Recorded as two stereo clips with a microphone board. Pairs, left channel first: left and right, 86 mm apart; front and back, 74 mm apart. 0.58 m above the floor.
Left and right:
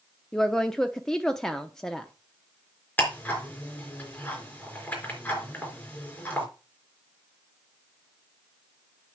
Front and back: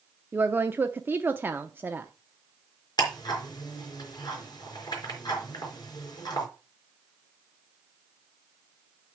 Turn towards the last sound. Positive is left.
turn(degrees=20)